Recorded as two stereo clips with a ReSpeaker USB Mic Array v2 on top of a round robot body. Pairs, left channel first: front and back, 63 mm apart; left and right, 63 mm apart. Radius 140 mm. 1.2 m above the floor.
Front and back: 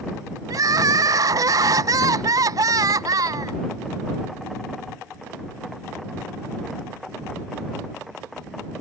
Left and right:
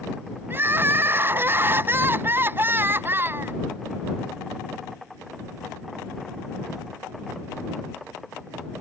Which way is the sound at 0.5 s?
150° right.